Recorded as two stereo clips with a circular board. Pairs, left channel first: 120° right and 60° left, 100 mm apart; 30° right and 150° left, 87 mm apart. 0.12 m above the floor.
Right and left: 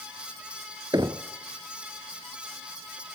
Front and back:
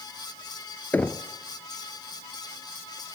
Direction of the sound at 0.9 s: 35° left.